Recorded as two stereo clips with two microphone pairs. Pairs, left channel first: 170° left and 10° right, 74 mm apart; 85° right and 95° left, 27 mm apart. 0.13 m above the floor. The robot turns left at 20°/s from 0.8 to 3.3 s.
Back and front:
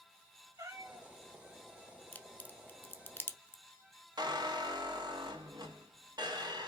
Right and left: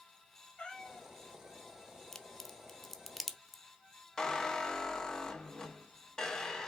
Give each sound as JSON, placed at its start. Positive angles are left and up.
{"t": 0.6, "sound": "a cat meowing", "azimuth_deg": -25, "distance_m": 1.2}
{"t": 2.1, "sound": "a crack", "azimuth_deg": -145, "distance_m": 0.7}
{"t": 4.2, "sound": "a squeak", "azimuth_deg": -10, "distance_m": 1.5}